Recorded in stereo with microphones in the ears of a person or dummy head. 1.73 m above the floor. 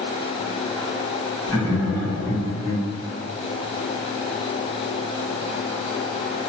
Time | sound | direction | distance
1.5 | laughter | 15° right (ahead or behind) | 1.7 m